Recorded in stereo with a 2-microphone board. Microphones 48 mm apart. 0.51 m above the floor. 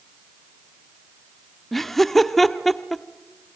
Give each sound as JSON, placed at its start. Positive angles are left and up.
{"t": 1.7, "sound": "laughter", "side_deg": 5, "distance_m": 0.9}